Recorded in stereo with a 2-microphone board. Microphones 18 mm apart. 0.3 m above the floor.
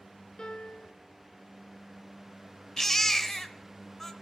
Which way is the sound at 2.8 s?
15° left (ahead or behind).